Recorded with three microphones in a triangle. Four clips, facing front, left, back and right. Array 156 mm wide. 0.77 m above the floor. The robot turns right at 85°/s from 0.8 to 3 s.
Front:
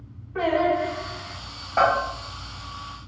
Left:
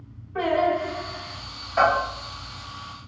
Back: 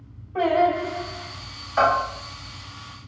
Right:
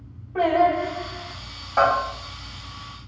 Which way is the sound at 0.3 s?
125° right.